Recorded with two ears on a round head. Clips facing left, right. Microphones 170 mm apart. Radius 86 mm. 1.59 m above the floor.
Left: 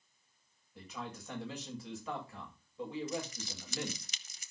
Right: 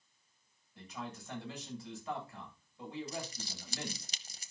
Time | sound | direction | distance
0.8 | a man speaking | 60° left (ahead or behind) | 8 m
3.1 | crumpling | 30° right (ahead or behind) | 0.8 m